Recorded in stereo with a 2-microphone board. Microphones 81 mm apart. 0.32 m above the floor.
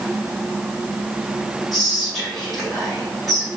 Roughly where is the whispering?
Centre.